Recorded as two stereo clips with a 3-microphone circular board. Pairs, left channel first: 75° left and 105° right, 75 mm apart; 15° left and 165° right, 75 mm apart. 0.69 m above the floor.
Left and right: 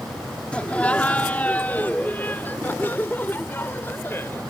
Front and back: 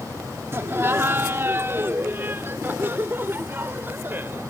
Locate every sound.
0.5 s laughter: 145° left; by 4.4 s 135° left